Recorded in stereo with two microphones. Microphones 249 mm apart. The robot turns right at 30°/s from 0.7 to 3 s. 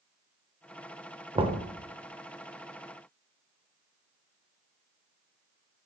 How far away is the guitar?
I don't hear a guitar.